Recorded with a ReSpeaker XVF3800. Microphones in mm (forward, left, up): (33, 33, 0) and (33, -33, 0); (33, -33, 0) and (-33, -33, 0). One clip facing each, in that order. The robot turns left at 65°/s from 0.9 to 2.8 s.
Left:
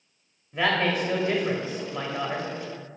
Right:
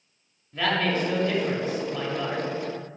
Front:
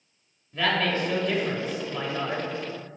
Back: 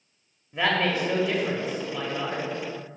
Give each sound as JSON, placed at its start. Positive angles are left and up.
{"t": 0.5, "sound": "a woman speaking", "azimuth_deg": 140, "distance_m": 0.9}